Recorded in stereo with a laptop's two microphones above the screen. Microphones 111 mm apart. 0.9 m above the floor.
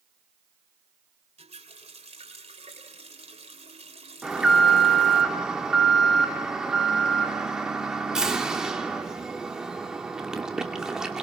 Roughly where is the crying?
I don't hear crying.